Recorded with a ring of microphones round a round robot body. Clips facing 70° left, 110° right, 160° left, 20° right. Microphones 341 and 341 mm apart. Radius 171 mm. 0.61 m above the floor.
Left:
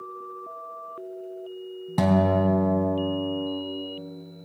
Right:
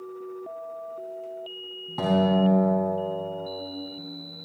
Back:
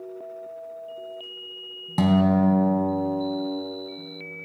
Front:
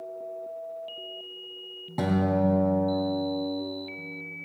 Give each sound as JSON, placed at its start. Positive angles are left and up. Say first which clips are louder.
{"t": 2.0, "sound": "a guitar", "louder": "even, back 5 dB", "azimuth_deg": 100, "distance_m": 3.5}